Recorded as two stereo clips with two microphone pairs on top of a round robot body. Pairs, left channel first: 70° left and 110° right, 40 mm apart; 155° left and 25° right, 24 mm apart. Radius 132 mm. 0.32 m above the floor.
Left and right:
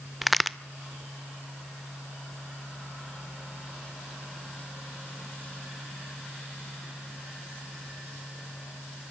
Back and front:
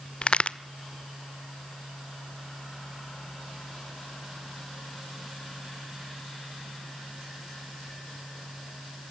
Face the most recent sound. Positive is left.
turn(degrees=145)